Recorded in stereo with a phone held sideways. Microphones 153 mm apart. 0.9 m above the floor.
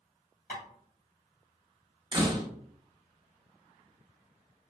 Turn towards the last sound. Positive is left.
turn(degrees=-30)  # may be behind; listen again after turning